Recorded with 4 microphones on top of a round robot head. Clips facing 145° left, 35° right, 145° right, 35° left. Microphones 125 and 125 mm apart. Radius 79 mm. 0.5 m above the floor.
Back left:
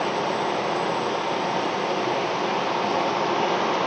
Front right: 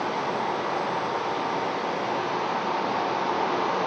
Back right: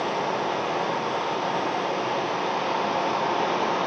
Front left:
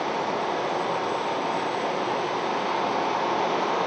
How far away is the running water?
About 4 m.